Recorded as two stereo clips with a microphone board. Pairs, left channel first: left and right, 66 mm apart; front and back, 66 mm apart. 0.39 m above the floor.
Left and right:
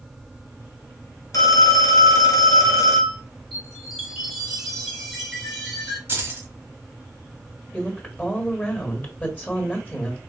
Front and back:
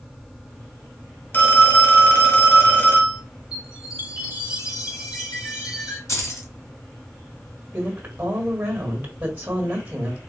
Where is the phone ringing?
60° left, 1.1 m.